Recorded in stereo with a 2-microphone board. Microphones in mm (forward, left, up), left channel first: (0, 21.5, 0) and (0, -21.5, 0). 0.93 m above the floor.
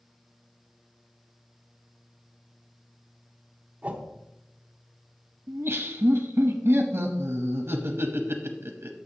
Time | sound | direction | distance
3.8 | a whoosh | 30° right (ahead or behind) | 0.9 m
5.5 | laughter | 65° right (ahead or behind) | 0.8 m